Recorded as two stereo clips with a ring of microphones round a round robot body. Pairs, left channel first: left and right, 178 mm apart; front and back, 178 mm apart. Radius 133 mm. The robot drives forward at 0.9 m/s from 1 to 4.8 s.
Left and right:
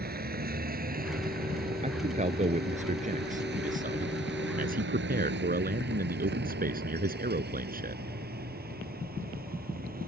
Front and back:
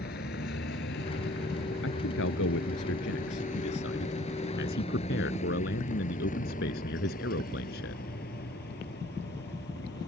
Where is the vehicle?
55° right; by 10.1 s 50° right.